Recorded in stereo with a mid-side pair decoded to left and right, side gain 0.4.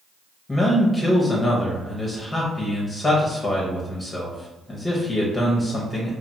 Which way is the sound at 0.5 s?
20° left.